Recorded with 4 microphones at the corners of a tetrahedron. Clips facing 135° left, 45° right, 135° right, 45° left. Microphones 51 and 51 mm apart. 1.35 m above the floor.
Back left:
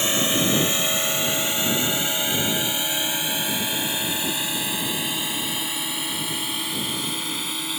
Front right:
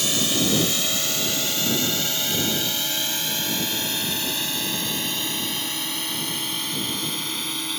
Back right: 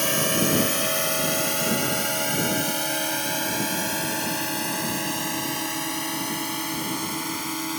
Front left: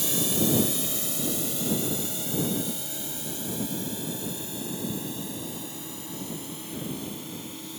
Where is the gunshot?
No gunshot in this recording.